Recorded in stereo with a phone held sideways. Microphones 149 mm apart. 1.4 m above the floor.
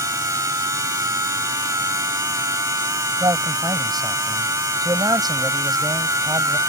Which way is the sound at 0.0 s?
20° right (ahead or behind).